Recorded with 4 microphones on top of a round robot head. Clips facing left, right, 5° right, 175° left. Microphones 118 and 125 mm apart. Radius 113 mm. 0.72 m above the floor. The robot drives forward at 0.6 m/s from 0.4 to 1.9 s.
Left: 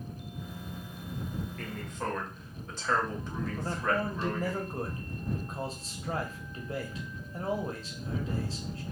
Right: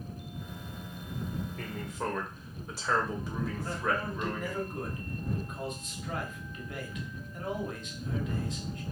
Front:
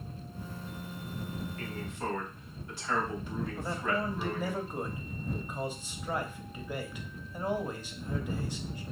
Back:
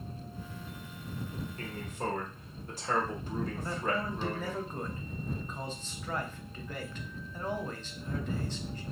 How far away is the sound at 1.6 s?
About 1.0 m.